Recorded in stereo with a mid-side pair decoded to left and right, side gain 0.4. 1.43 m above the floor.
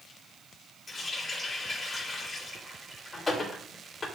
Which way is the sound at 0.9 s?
40° left.